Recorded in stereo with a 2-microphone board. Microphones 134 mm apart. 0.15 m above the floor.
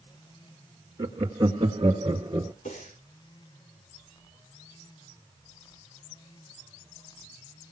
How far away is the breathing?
About 9.5 m.